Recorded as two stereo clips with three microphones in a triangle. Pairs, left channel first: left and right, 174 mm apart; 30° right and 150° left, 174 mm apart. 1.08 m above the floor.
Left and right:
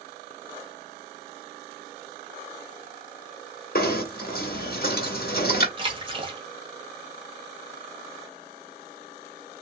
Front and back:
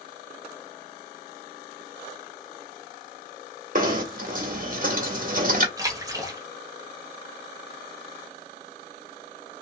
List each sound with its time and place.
3.8 s knocking: 115° left, 1.5 m
5.8 s a splash: 145° right, 1.3 m